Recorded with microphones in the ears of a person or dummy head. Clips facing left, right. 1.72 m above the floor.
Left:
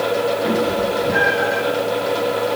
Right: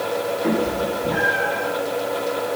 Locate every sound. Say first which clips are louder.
0.4 s a cat meowing: left 2 dB; 10° right (ahead or behind), 1.5 m; by 1.6 s 25° left (ahead or behind), 1.5 m